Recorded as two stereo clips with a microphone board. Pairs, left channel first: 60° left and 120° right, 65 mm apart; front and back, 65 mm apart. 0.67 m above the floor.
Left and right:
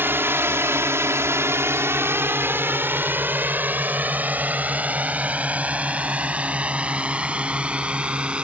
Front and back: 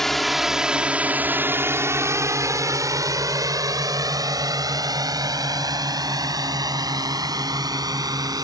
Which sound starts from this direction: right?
A drone, at 0.0 s.